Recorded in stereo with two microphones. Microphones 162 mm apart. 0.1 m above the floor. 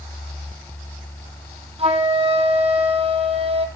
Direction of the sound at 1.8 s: 40° right (ahead or behind).